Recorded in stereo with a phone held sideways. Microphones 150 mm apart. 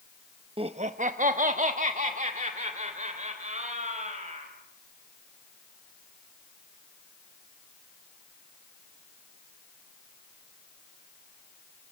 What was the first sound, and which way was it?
Laughter, 35° right (ahead or behind).